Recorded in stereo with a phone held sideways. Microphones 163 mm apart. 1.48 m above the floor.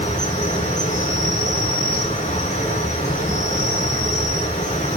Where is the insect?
50° left (ahead or behind), 5 m.